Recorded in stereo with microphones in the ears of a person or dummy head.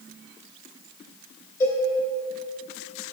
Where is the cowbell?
15° left (ahead or behind), 2.5 m.